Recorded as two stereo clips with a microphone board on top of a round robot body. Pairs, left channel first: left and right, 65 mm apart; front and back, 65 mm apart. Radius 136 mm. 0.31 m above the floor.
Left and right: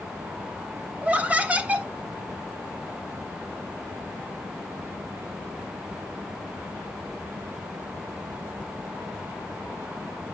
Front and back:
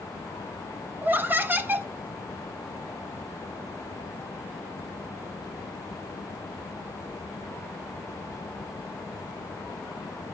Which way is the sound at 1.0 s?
145° right.